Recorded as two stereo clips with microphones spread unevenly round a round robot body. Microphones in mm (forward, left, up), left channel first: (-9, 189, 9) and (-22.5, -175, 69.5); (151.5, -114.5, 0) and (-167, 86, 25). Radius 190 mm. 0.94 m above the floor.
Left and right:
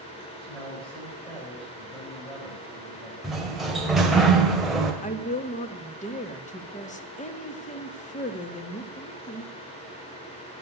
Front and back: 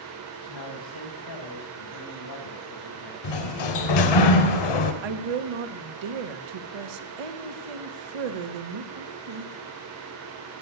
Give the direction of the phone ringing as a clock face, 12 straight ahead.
I don't hear a phone ringing.